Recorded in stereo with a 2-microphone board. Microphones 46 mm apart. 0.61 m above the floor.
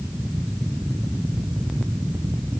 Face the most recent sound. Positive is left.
No sound to turn to.